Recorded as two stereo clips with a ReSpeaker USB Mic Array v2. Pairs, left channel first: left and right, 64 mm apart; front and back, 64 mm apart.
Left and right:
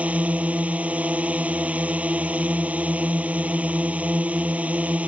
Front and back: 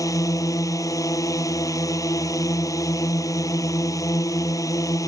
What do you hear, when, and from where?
0.0 s a drone: 25° right